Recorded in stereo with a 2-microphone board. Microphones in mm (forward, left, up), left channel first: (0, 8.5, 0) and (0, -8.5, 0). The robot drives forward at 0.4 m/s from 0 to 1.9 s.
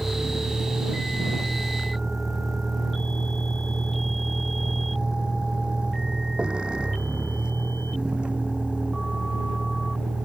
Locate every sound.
0.0 s a vehicle: 10° left (ahead or behind); by 10.3 s 85° right